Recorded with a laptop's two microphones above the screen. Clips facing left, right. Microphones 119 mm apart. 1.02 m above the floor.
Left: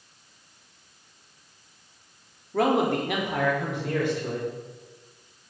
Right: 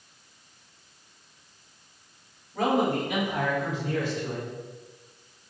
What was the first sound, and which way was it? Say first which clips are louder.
A man speaking: left 2 dB; 75° left (ahead or behind).